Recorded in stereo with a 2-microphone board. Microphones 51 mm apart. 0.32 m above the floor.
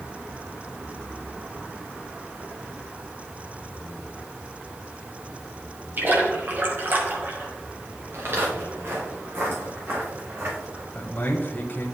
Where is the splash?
45° right (ahead or behind), 1.8 m.